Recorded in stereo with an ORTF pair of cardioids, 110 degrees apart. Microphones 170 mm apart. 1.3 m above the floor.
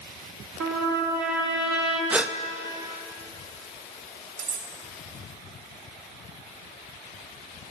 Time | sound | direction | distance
0.6 | a trumpet | 65° right | 3 m
2.1 | a gasp | 5° right | 0.5 m
4.4 | cutlery clinking | 50° right | 2 m